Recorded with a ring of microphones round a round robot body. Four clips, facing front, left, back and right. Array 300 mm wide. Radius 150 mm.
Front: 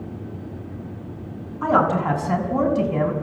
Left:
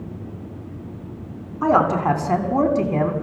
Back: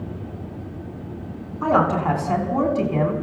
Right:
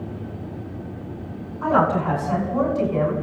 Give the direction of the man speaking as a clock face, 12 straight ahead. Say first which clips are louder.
Left 2 dB, even; 10 o'clock.